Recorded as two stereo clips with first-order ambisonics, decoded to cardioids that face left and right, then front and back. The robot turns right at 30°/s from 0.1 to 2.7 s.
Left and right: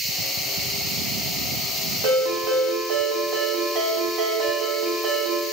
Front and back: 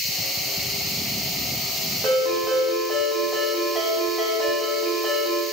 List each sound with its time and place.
2.0 s a ringtone: 100° right, 1.6 m; by 5.4 s 80° right, 1.6 m